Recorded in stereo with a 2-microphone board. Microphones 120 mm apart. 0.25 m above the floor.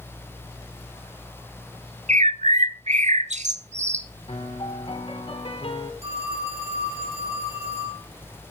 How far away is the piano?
About 2.5 m.